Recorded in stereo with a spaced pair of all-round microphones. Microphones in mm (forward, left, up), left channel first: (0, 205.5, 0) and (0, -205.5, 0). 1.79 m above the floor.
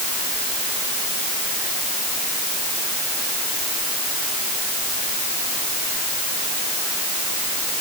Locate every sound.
Only background noise.